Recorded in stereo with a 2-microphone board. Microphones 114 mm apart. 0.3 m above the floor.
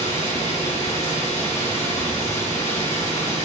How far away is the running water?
About 3.5 m.